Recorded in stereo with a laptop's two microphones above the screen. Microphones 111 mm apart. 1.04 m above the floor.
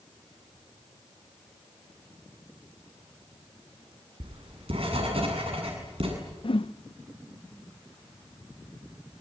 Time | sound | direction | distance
4.2 | writing | 65° right (ahead or behind) | 8 m
6.4 | a whoosh | 55° left (ahead or behind) | 0.7 m